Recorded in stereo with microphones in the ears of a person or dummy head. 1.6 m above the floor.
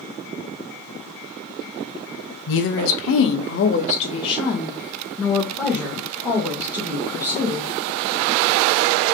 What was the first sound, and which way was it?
A woman speaking, 65° left (ahead or behind).